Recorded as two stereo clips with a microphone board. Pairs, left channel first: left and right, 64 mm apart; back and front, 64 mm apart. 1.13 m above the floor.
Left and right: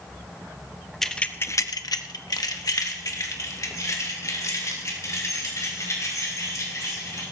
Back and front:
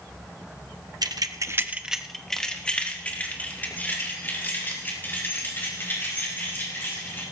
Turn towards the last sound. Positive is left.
turn(degrees=125)